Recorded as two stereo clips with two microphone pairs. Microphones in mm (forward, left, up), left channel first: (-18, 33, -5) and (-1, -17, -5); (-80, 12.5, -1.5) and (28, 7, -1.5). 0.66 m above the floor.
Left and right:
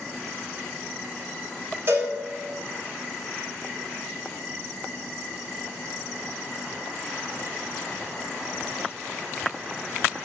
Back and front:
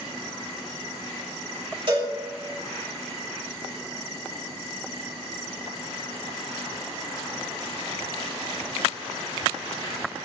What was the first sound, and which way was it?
A cowbell, 35° right.